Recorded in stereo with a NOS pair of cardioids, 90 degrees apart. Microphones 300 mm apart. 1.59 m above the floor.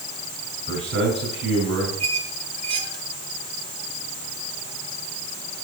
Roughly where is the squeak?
Ahead right.